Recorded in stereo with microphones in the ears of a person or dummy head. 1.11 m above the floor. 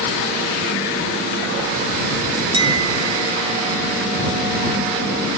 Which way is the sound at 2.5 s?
25° right (ahead or behind).